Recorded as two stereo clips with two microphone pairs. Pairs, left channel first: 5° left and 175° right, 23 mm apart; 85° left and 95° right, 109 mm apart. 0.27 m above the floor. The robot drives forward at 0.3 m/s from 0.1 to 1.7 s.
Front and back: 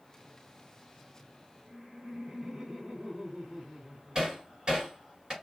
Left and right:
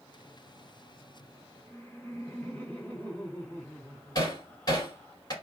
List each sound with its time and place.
1.7 s laughter: 155° left, 1.9 m
4.2 s hammering: 135° left, 1.6 m